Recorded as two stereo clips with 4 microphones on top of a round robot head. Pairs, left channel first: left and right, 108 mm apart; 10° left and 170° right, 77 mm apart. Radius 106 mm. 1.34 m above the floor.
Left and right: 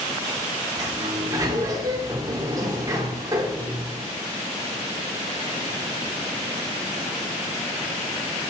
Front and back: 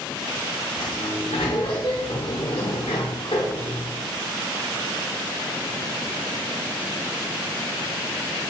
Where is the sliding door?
40° right, 1.1 m.